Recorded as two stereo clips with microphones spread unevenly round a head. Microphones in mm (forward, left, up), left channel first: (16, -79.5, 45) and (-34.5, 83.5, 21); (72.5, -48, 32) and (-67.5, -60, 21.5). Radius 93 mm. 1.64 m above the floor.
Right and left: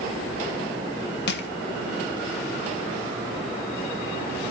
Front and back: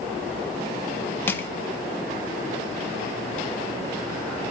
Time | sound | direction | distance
1.3 | crushing | 65° right | 0.9 m